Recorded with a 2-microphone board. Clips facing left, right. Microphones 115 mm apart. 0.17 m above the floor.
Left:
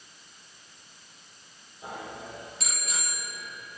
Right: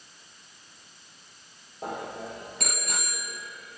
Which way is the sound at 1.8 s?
55° right (ahead or behind).